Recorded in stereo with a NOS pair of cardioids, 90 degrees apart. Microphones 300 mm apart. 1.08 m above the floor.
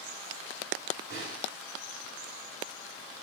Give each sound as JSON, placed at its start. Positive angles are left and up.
{"t": 1.1, "sound": "a snare drum", "azimuth_deg": -45, "distance_m": 2.0}